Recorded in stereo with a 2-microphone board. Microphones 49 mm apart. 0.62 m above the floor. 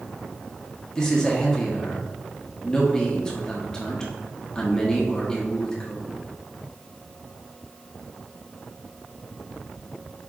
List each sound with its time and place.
0.9 s a man speaking: 15° left (ahead or behind), 0.8 m